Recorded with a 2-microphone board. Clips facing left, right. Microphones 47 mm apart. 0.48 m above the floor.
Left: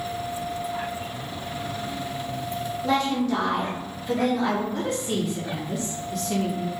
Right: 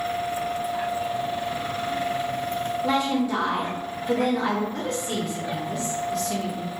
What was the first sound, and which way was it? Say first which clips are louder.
A woman speaking: left 1 dB; 15° right (ahead or behind).